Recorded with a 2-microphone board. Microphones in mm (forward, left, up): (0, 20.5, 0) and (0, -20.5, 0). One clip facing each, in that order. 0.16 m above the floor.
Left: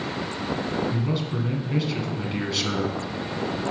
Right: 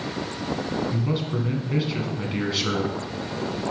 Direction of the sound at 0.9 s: 10° right (ahead or behind).